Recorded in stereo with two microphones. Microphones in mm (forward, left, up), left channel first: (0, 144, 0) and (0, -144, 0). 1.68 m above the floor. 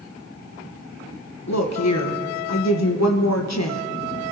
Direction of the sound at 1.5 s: 70° left (ahead or behind).